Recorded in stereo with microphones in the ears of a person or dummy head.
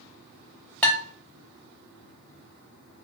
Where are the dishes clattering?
10° left (ahead or behind), 0.6 m.